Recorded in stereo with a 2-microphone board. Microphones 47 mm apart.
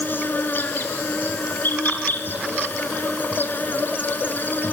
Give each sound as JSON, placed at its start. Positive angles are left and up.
{"t": 0.0, "sound": "an insect", "side_deg": 45, "distance_m": 1.1}